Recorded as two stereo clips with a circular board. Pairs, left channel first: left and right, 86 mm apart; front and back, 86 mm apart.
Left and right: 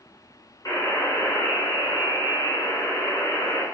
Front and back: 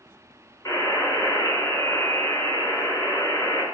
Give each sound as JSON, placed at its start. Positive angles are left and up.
{"t": 0.7, "sound": "a buzzer", "azimuth_deg": 45, "distance_m": 4.0}